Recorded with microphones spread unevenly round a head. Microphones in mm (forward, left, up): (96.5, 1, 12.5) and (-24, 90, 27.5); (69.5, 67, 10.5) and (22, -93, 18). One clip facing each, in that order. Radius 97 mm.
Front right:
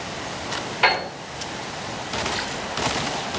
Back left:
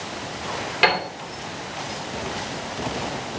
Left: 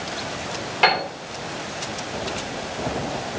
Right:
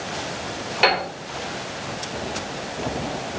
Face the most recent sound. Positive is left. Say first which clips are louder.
# back left 1 dB, even
turn(degrees=170)